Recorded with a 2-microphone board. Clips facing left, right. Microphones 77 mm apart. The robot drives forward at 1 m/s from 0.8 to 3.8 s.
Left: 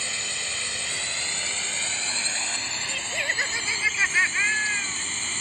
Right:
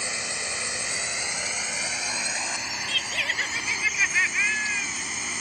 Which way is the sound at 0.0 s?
20° right (ahead or behind).